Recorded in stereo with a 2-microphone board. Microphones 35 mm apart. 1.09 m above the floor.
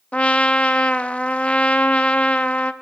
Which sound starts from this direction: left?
A trumpet, at 0.1 s.